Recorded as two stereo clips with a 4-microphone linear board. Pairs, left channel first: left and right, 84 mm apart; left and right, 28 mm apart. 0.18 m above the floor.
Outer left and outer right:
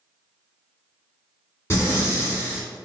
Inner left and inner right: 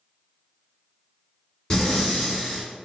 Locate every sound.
1.7 s breathing: 35° left (ahead or behind), 1.8 m